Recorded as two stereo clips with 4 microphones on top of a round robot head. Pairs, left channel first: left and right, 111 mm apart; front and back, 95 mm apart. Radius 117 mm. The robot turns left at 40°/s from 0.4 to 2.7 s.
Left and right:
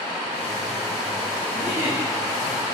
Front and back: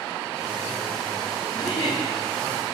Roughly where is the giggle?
Ahead.